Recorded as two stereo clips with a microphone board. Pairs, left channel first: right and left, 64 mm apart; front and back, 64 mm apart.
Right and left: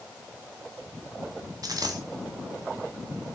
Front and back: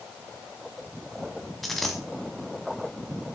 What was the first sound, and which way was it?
A dropped coin, 90° left.